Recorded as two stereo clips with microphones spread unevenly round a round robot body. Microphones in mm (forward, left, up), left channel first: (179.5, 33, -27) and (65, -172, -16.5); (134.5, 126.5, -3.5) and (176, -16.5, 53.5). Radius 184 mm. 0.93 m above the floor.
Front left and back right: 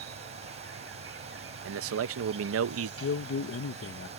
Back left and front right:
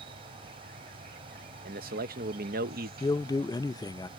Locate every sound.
0.0 s an insect: 100° right
1.6 s a man speaking: 120° right
3.0 s a man speaking: 65° left